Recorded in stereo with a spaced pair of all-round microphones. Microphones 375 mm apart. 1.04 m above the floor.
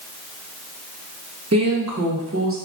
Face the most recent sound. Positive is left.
turn(degrees=-35)  # may be behind; listen again after turning